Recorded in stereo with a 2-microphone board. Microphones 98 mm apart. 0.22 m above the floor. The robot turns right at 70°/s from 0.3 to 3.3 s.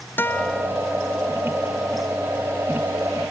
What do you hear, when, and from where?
0.2 s a guitar: 20° left (ahead or behind); by 0.7 s 5° right (ahead or behind)